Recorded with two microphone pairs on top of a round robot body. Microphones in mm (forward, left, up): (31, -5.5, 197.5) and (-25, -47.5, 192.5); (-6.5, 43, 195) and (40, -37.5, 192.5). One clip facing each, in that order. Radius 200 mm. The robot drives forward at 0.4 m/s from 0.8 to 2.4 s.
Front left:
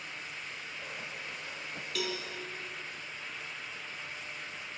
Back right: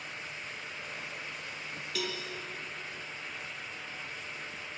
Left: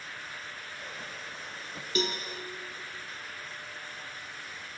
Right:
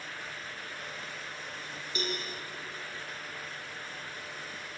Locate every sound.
1.9 s a cowbell: 125° left, 2.5 m; by 2.2 s 130° left, 2.5 m